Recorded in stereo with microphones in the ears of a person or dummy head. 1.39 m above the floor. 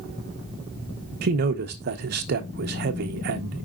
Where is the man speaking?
50° right (ahead or behind), 0.9 m.